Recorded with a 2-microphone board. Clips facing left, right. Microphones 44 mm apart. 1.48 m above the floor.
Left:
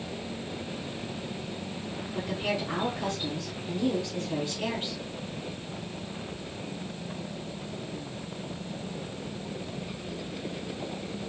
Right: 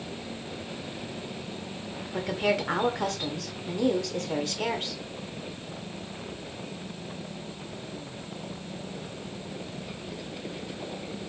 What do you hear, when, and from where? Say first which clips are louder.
2.1 s a woman speaking: right 5 dB; 70° right (ahead or behind), 0.9 m